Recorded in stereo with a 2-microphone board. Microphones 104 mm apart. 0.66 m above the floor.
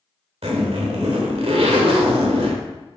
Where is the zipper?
75° right (ahead or behind), 1.8 m.